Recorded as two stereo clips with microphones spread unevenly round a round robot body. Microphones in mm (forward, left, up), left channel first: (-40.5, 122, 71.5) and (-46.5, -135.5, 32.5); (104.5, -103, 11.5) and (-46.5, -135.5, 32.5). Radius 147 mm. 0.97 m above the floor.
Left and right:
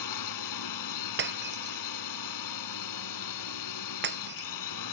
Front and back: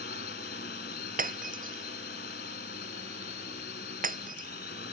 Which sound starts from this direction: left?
A drone, at 0.0 s.